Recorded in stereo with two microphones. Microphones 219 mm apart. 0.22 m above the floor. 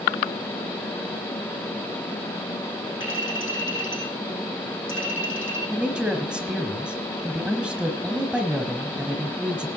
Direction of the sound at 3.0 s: 60° left (ahead or behind).